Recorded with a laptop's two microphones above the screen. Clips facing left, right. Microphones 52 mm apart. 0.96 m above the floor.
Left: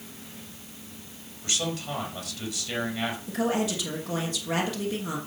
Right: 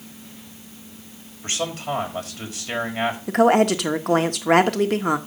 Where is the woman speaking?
60° right (ahead or behind), 1.1 m.